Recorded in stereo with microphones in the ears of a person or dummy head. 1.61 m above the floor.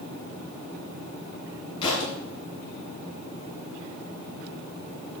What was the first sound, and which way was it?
A thud, 25° left (ahead or behind).